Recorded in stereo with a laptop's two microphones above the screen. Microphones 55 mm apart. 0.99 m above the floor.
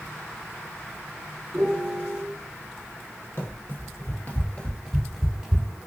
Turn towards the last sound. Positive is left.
turn(degrees=-20)  # may be behind; listen again after turning